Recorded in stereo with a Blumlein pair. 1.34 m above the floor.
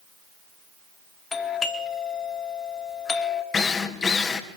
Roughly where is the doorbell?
Ahead.